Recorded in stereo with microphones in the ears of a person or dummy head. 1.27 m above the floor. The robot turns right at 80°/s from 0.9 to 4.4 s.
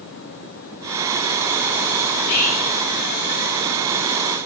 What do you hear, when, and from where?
2.1 s whispering: 100° left, 5 m; by 2.8 s 150° left, 5 m